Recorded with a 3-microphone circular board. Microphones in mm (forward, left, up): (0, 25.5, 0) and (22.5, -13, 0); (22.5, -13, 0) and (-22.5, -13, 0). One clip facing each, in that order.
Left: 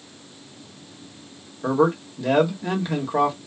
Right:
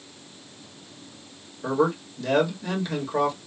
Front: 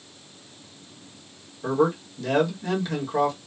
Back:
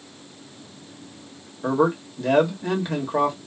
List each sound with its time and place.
1.6 s a man speaking: 165° left, 1.2 m